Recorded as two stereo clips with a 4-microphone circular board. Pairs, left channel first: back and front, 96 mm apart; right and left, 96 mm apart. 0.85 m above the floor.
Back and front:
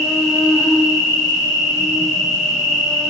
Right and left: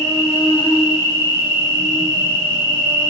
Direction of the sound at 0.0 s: 90° right.